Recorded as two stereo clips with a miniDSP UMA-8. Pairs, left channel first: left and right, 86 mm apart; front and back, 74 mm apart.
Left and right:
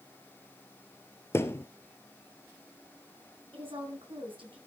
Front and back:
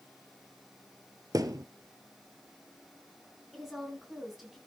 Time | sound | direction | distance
1.3 | a thud | 150° left | 1.1 m
3.5 | a woman speaking | 95° right | 6 m